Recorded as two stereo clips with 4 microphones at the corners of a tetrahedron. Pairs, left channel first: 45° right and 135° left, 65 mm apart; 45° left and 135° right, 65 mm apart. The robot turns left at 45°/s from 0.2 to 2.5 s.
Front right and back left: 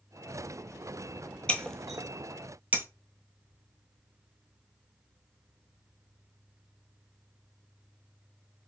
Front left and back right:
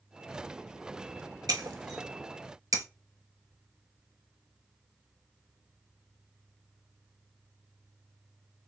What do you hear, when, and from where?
1.5 s breaking glass: 120° right, 0.7 m; by 2.9 s 165° right, 0.7 m